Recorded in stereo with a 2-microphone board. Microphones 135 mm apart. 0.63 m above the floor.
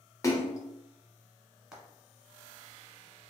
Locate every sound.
0.2 s a splash: 25° left (ahead or behind), 0.5 m
1.7 s frying: 5° right (ahead or behind), 0.9 m